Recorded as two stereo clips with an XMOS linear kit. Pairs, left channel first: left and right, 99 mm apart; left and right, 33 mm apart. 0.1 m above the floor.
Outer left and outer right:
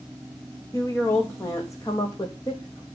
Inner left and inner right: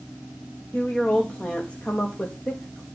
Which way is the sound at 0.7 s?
30° left (ahead or behind).